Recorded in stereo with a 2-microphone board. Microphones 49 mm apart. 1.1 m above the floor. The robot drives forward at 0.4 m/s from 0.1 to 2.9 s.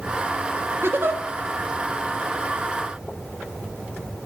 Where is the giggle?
50° right (ahead or behind), 1.8 m; by 1.2 s 45° right (ahead or behind), 1.9 m.